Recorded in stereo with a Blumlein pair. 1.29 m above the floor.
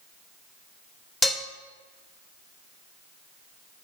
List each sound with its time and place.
1.2 s dishes clattering: 15° left, 1.1 m